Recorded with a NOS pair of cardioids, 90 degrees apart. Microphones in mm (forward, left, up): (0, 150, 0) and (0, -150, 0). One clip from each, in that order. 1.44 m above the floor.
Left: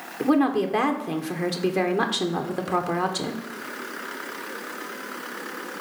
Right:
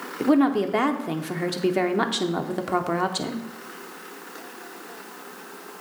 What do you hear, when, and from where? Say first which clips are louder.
0.2 s a woman speaking: right 1 dB; 5° right, 0.5 m